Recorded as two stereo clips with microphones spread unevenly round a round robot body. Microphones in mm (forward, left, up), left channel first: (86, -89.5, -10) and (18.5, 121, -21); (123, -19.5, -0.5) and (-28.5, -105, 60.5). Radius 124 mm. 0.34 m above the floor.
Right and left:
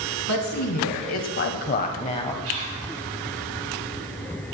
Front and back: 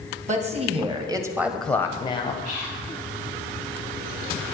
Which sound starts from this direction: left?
Whispering, at 2.4 s.